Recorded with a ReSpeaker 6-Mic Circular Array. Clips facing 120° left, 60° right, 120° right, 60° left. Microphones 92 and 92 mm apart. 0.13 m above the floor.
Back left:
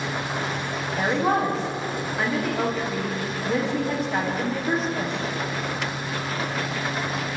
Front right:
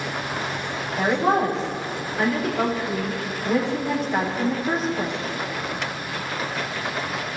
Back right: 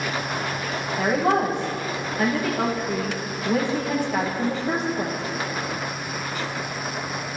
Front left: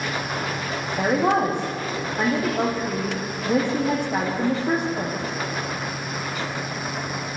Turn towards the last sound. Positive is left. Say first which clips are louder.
# front right 2 dB, front left 1 dB
turn(degrees=30)